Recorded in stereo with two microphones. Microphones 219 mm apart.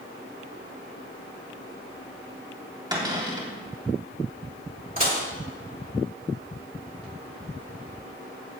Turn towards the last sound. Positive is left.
turn(degrees=-35)  # may be behind; listen again after turning